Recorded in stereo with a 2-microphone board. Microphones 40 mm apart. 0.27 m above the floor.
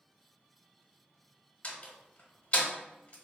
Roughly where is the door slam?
Left.